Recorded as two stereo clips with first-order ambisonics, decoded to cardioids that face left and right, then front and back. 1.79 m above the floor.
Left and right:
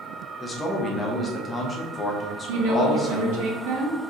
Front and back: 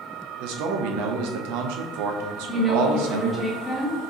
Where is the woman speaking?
80° right, 1.3 m.